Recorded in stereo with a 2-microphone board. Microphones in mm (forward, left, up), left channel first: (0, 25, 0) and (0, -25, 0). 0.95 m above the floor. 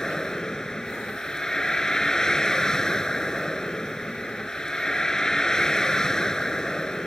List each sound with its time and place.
0.0 s a vehicle: 10° left (ahead or behind)